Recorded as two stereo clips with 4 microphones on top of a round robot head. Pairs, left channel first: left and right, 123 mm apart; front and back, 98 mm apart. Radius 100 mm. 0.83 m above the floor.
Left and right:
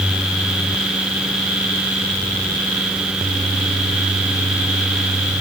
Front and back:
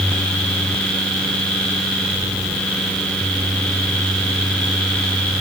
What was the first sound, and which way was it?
Only background noise.